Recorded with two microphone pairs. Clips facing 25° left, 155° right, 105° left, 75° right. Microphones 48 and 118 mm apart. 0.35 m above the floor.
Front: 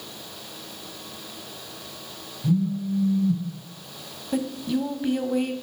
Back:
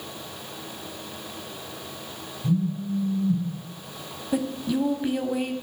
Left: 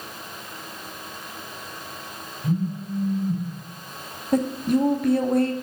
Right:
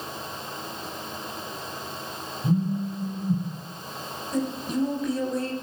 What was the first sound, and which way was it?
A phone buzzing, straight ahead.